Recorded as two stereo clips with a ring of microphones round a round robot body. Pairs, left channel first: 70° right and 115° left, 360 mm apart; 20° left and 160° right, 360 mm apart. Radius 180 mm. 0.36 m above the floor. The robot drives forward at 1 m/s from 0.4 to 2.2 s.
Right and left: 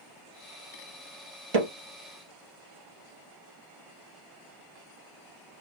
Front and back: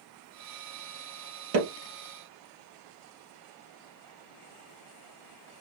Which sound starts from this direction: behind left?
Hammering, at 1.5 s.